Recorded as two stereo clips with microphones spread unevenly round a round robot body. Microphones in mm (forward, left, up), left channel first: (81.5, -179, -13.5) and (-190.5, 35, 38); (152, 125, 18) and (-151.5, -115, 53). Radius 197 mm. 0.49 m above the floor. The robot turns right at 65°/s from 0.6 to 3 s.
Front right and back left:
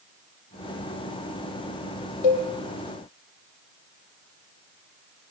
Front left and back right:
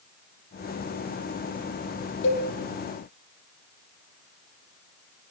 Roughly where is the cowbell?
Ahead right.